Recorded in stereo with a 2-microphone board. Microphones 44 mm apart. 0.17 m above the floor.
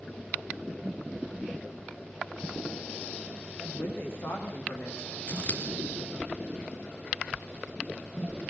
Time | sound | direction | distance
3.6 | a woman speaking | 70° left (ahead or behind) | 7.5 m
5.3 | scissors | 35° left (ahead or behind) | 2.5 m